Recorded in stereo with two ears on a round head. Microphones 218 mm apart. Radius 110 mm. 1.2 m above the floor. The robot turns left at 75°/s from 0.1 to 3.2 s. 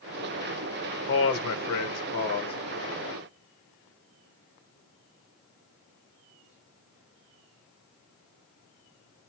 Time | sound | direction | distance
1.1 | a man speaking | 130° left | 0.8 m